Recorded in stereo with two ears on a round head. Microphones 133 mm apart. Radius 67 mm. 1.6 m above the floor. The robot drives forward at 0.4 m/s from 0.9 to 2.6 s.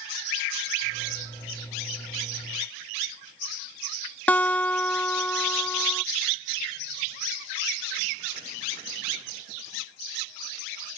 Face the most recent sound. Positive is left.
turn(degrees=10)  # may be behind; listen again after turning